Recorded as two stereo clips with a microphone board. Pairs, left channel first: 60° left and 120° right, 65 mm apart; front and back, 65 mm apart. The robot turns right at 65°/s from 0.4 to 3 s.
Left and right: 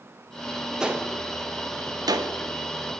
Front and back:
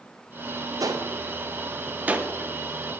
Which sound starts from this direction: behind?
A gunshot, at 0.8 s.